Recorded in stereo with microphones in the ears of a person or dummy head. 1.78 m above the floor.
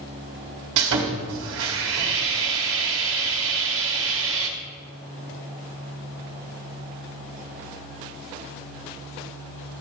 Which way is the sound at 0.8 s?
65° right (ahead or behind).